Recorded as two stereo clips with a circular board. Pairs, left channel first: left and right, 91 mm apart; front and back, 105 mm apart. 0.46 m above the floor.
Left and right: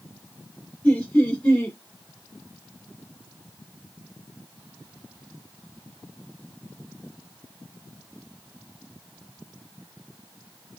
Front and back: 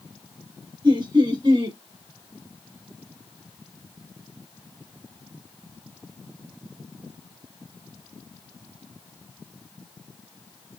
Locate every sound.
0.8 s laughter: 165° left, 2 m